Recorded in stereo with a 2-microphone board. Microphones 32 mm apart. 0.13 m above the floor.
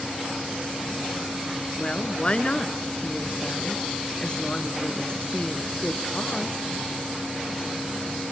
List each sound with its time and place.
1.8 s a woman speaking: 35° left (ahead or behind), 1.3 m